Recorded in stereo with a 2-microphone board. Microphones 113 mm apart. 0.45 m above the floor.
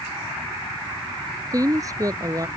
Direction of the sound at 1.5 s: 30° right (ahead or behind).